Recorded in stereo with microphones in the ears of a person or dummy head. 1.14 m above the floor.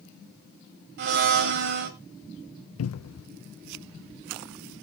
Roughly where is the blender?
Right.